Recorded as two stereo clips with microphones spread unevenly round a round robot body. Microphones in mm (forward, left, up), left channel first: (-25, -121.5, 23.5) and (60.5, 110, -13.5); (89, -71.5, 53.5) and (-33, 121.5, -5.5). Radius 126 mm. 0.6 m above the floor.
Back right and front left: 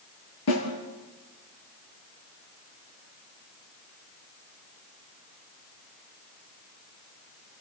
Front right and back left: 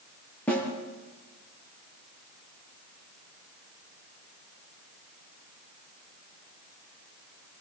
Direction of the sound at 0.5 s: 140° right.